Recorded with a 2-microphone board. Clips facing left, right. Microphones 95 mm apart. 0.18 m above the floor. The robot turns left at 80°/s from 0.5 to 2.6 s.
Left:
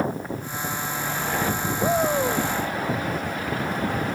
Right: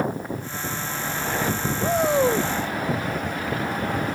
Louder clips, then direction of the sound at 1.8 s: Right 2 dB; 15° left.